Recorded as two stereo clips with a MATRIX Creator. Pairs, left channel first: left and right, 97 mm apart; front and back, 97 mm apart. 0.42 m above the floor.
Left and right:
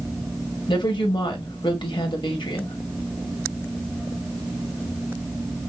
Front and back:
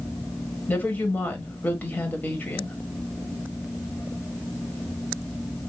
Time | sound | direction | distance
0.7 | a woman speaking | 70° left | 1.8 m